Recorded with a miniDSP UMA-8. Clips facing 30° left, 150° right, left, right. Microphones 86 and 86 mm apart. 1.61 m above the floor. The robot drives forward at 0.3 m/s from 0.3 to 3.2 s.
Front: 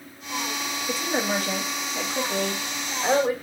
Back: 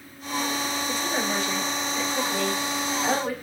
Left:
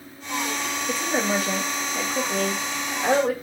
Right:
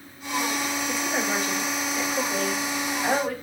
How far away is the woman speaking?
About 2 m.